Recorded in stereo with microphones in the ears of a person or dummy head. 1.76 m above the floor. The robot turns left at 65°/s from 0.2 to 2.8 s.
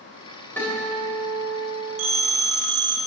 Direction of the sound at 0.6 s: 170° left.